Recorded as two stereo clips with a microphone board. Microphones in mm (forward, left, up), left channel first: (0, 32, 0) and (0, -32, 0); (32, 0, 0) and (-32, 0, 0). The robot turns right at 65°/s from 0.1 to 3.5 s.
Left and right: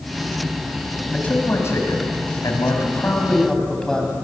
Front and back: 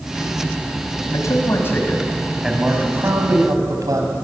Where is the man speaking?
15° left, 3.5 m; by 4.1 s 170° left, 3.5 m.